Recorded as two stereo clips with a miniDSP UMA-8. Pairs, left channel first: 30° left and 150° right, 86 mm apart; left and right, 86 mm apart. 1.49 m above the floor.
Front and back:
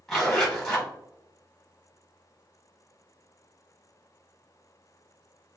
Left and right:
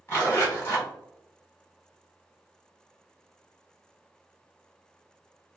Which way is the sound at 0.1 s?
100° left.